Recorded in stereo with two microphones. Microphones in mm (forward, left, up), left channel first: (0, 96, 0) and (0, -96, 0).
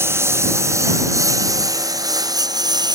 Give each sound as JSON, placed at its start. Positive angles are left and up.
{"t": 0.0, "sound": "a lawn mower", "side_deg": -15}